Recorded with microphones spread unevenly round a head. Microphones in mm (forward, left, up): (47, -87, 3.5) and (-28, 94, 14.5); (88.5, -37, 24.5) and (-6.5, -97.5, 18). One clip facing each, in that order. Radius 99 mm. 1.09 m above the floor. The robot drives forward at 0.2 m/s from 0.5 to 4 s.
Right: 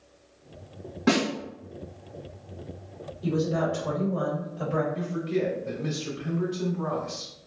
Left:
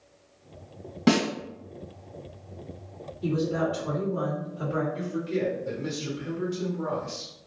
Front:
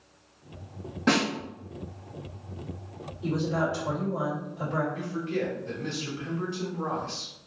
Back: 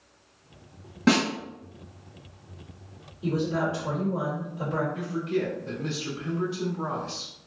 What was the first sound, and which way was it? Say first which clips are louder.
A snare drum: left 1 dB, back 3 dB; 145° left.